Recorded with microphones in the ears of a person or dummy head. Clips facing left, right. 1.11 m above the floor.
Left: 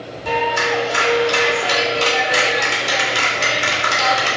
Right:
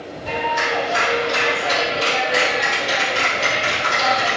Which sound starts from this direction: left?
A clap, at 0.2 s.